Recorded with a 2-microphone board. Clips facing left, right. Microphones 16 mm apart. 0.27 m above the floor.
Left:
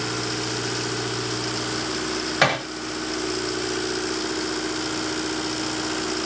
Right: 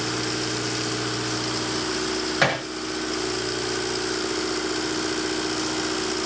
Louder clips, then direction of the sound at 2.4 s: Left 3 dB; 15° left (ahead or behind).